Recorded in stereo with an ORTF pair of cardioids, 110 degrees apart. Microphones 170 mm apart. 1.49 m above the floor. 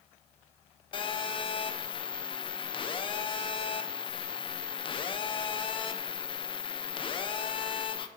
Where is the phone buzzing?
30° left, 1.0 m.